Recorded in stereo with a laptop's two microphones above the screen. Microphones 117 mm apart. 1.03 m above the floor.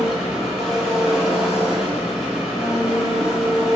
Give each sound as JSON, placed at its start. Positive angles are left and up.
{"t": 0.0, "sound": "an engine running", "side_deg": -5, "distance_m": 1.0}